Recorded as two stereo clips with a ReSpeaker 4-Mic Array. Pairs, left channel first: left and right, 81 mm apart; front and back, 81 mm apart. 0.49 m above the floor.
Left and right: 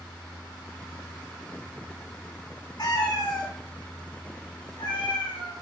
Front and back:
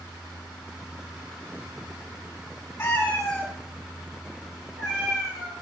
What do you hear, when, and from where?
2.8 s a cat meowing: 65° left, 0.9 m; by 5.5 s 95° left, 3 m